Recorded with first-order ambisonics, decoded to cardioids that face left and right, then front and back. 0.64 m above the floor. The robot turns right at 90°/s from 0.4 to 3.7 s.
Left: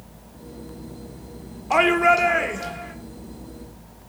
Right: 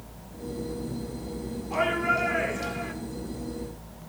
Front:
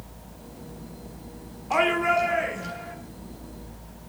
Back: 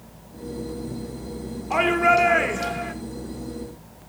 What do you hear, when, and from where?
1.7 s a shout: 90° left, 1.9 m; by 2.9 s 160° right, 1.9 m